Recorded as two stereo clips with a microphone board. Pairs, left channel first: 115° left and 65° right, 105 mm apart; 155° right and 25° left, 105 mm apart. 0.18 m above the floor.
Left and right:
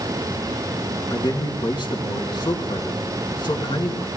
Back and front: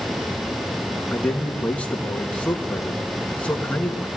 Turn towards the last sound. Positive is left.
turn(degrees=130)